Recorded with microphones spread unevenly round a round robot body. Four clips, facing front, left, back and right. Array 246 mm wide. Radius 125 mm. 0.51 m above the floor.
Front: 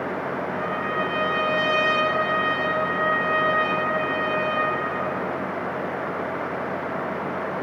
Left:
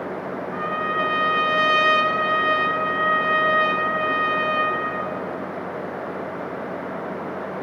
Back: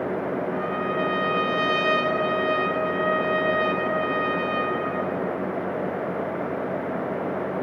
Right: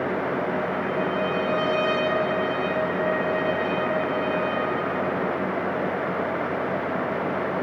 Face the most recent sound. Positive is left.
turn(degrees=110)